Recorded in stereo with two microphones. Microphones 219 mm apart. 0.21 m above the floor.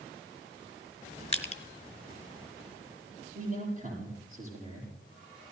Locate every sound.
1.3 s crushing: 30° left (ahead or behind), 1.2 m
3.4 s a man speaking: 35° right (ahead or behind), 7 m